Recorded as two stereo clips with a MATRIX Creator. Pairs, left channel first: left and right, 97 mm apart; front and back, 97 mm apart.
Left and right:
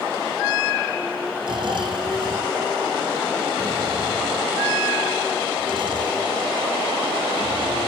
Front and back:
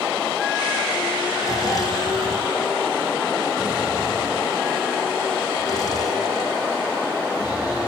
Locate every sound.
1.4 s snoring: 50° right, 3 m